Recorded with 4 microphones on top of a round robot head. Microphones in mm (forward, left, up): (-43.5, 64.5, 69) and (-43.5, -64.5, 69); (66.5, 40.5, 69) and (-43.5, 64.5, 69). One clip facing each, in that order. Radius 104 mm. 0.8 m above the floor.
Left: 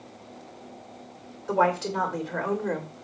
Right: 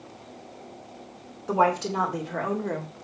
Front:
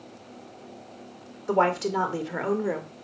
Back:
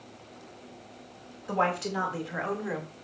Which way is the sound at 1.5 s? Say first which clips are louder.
Right 1 dB, front 5 dB; 15° right.